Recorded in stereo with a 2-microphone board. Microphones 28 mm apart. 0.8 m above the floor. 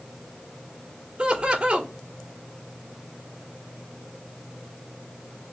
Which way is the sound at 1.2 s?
45° right (ahead or behind).